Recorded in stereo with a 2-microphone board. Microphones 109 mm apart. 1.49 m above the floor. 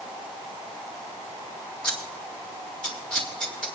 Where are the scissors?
10° left (ahead or behind), 2.5 m.